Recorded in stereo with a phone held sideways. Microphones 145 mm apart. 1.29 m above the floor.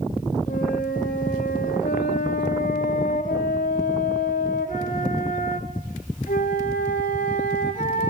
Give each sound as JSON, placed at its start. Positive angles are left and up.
{"t": 0.5, "sound": "a flute", "side_deg": 65, "distance_m": 1.2}